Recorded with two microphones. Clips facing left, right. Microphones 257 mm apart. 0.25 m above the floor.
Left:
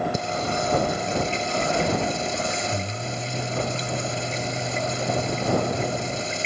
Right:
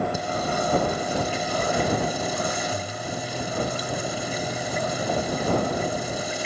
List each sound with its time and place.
0.1 s singing: 25° left (ahead or behind)